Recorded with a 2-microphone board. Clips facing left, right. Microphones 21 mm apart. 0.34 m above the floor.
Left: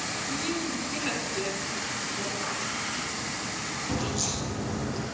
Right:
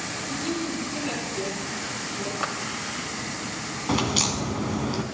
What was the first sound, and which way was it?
A woman speaking, 25° left (ahead or behind).